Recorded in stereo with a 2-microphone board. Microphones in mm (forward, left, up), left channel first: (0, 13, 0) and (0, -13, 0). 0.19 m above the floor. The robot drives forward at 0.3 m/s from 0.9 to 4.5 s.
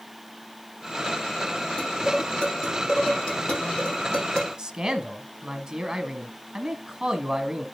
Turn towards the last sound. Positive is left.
turn(degrees=-30)  # may be behind; listen again after turning